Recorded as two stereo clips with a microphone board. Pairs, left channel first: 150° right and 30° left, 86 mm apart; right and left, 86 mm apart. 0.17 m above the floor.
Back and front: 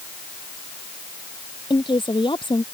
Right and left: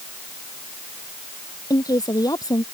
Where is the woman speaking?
135° right.